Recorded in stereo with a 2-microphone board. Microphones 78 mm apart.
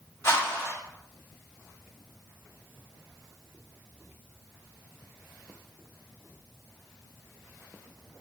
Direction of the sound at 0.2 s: 30° left (ahead or behind).